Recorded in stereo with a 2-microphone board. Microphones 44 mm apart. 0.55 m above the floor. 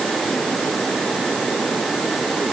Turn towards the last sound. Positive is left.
No sound to turn to.